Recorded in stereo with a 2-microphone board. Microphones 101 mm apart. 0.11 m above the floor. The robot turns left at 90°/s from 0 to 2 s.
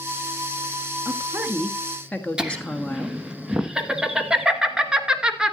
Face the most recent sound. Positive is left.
turn(degrees=-10)  # may be behind; listen again after turning